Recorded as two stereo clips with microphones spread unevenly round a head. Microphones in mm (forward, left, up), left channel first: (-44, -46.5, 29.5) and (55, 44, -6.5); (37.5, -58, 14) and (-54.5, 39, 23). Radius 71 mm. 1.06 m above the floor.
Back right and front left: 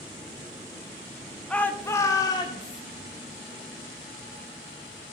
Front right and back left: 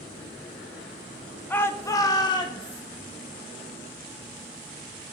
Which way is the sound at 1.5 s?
25° right.